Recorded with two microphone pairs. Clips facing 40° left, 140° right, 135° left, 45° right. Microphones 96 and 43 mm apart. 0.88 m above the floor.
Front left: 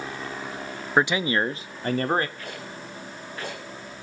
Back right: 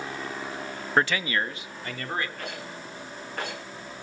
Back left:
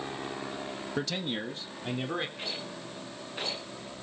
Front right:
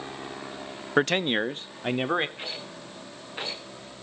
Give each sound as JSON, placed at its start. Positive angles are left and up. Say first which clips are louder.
{"t": 1.0, "sound": "a man speaking", "louder": "front left 3 dB, front right 11 dB", "azimuth_deg": -40, "distance_m": 0.7}
{"t": 2.4, "sound": "a rattle", "louder": "even, even", "azimuth_deg": -115, "distance_m": 10.0}